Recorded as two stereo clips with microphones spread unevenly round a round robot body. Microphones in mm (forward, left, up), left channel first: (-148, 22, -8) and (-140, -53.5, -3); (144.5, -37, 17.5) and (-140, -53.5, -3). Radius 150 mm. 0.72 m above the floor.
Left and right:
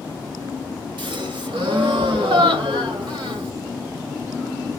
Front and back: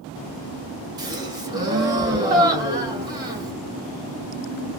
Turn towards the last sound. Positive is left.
turn(degrees=-100)